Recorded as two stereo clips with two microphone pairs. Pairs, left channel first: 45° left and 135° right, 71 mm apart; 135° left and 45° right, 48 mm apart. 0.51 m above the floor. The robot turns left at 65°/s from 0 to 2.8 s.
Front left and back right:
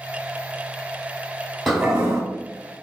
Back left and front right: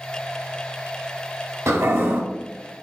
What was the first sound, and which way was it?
A toilet flushing, 45° right.